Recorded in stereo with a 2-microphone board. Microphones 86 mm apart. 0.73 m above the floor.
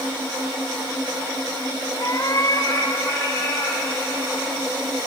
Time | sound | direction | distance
2.0 | a cat meowing | 55° left (ahead or behind) | 1.5 m